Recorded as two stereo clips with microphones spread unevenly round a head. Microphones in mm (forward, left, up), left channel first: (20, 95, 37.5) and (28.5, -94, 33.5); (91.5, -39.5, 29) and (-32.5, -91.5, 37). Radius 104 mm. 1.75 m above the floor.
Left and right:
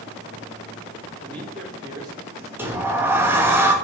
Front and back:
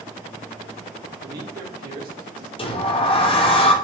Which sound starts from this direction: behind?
A man speaking, at 1.2 s.